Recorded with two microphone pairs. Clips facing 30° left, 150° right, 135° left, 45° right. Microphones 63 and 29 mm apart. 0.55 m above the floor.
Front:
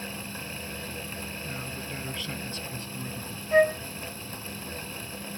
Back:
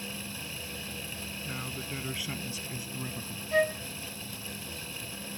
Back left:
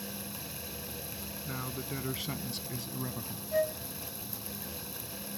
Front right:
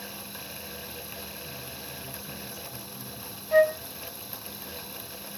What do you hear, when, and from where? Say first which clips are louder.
1.5 s a man speaking: front 1 dB, back left 2 dB; 130° left
3.5 s a flute: front 6 dB, front right 10 dB; 30° right